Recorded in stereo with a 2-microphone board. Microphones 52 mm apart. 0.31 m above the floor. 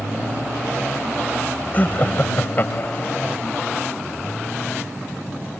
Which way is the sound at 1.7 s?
35° left (ahead or behind).